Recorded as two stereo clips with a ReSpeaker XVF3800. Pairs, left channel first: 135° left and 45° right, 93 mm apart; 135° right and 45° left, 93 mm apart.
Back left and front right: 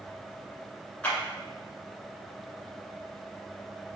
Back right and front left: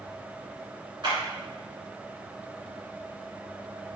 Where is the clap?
60° left, 1.9 m.